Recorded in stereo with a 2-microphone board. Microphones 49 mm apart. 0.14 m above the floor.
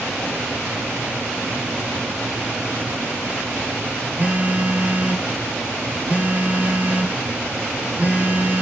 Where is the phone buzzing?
35° right (ahead or behind), 0.9 m.